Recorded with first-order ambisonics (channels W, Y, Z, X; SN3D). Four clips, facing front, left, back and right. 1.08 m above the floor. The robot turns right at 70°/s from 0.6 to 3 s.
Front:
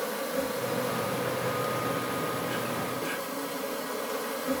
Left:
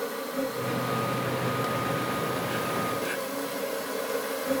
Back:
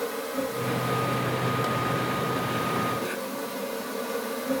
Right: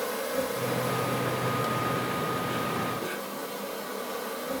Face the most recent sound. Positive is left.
turn(degrees=95)